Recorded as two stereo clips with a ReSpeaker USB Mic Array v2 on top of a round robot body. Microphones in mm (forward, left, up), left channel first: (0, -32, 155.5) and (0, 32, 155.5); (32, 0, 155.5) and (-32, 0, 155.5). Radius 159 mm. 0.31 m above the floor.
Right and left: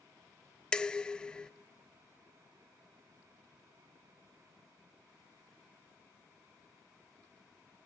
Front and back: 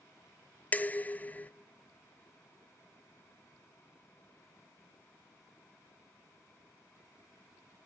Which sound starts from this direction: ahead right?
Dishes clattering, at 0.7 s.